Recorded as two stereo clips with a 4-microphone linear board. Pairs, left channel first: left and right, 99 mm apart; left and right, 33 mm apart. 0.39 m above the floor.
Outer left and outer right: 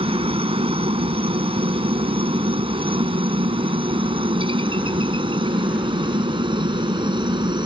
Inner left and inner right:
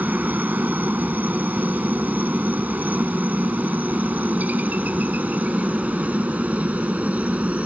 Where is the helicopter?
70° right (ahead or behind); by 7.7 s 50° right (ahead or behind).